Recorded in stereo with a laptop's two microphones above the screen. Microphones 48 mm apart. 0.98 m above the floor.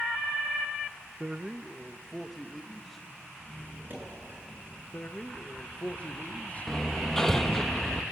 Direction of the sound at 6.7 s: 10° left (ahead or behind).